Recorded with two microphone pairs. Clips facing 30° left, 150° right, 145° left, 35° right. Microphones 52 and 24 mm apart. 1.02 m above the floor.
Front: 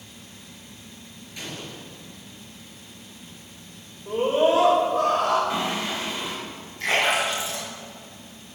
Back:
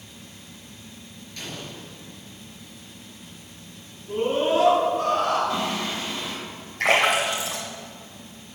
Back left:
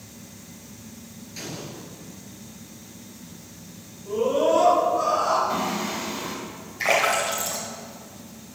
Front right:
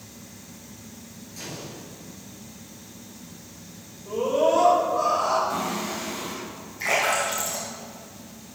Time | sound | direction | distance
1.4 | an explosion | 105° left | 2.5 m
4.1 | a scream | 45° left | 3.5 m
5.5 | singing | 95° left | 2 m
6.8 | a splash | 170° right | 2.5 m